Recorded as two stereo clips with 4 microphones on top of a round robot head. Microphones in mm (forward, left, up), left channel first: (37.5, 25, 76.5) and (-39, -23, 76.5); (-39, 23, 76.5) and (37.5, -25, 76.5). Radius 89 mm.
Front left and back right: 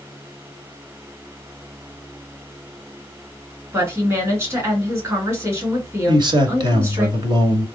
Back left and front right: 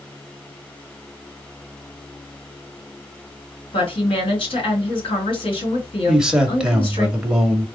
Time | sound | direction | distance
3.7 | a woman speaking | 155° left | 3 m
6.1 | a man speaking | 115° right | 1.7 m